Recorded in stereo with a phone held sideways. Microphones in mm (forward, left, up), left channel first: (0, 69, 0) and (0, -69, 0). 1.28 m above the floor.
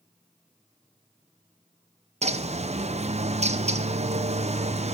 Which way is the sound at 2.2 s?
50° right (ahead or behind).